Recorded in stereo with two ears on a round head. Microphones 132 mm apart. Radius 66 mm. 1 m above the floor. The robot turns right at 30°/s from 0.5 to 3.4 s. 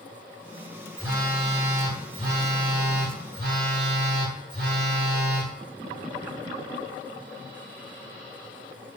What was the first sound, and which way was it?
A phone buzzing, 160° right.